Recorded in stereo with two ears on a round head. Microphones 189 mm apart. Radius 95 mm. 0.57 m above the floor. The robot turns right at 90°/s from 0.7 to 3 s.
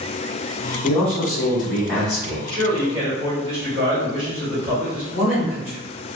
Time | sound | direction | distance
0.8 | a man speaking | 30° left | 1.4 m
2.5 | a man speaking | 65° right | 1.8 m
5.1 | a woman speaking | 30° left (ahead or behind) | 1.8 m